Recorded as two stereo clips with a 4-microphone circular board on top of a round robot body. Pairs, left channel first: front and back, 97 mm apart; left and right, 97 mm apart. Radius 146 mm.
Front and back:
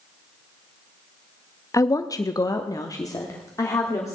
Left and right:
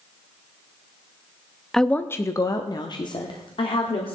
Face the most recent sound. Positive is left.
turn(degrees=60)